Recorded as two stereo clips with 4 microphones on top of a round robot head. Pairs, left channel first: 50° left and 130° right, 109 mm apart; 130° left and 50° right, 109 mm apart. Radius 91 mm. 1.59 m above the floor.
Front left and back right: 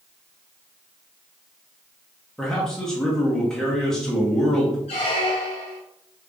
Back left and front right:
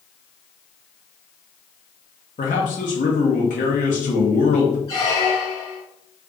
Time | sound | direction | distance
2.4 | a man speaking | 130° left | 0.8 m
4.9 | a squeak | 70° left | 0.6 m